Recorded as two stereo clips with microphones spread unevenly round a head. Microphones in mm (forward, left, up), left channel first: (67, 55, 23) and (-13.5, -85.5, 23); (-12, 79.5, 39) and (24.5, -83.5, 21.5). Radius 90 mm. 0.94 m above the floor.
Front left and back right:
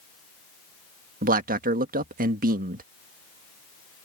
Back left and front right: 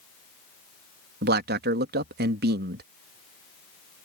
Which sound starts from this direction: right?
A man speaking, at 1.2 s.